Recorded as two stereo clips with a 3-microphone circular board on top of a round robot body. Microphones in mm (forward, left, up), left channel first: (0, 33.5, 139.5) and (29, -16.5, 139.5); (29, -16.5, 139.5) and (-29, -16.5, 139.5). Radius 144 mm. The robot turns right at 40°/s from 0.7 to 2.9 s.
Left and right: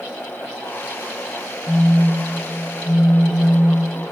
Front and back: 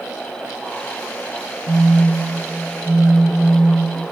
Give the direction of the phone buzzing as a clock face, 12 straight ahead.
11 o'clock.